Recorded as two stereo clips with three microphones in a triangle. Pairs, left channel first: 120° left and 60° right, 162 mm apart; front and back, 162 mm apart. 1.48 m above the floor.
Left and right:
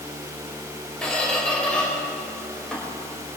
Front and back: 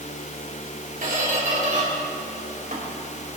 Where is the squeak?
155° right, 4 m.